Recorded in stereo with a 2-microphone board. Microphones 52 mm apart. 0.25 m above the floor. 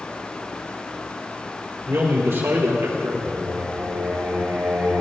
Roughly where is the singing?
Right.